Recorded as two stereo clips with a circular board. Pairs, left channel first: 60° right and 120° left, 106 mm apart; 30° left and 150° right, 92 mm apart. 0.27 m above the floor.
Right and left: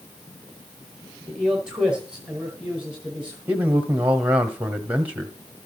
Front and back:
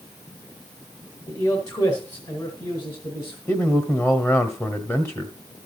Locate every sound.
1.3 s a man speaking: 40° left, 1.8 m; by 3.4 s 45° left, 2.5 m
3.5 s a man speaking: 65° left, 1.3 m